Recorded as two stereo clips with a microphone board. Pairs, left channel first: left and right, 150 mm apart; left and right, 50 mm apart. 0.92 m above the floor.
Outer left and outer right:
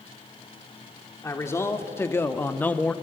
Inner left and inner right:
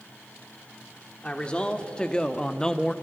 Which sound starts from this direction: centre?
A man speaking, at 1.2 s.